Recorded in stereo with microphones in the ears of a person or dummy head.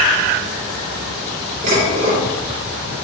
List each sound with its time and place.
1.6 s dishes clattering: 45° right (ahead or behind), 2.5 m